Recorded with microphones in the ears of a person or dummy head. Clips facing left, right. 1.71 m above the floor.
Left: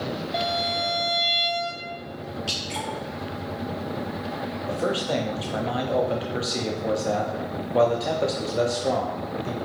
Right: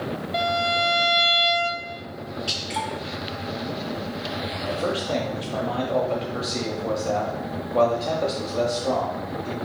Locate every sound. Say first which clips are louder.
0.3 s a violin: right 5 dB; 5° right (ahead or behind), 0.8 m
2.5 s dripping: right 1 dB; centre (ahead or behind), 2 m
4.7 s a man speaking: even; 10° left (ahead or behind), 0.6 m